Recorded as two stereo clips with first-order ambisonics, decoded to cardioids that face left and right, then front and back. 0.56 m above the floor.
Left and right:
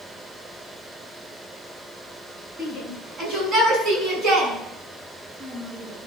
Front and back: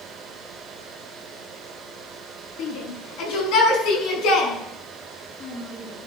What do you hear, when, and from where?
2.6 s a shout: 20° right, 6.5 m; by 6.1 s 45° right, 7 m